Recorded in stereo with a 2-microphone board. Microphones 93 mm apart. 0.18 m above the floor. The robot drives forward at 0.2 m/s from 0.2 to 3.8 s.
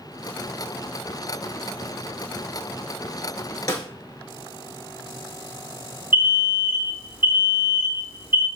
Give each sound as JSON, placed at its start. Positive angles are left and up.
{"t": 3.7, "sound": "a snare drum", "side_deg": 40, "distance_m": 0.8}
{"t": 6.1, "sound": "an alarm", "side_deg": -25, "distance_m": 1.4}